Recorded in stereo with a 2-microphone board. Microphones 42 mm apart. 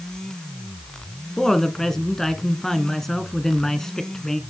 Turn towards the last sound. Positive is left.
turn(degrees=10)  # may be behind; listen again after turning